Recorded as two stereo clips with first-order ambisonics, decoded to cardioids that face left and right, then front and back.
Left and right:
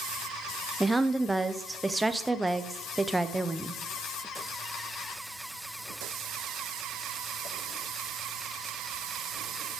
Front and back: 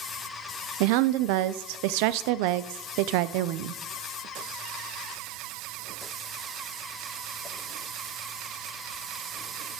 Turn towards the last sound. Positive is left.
turn(degrees=-175)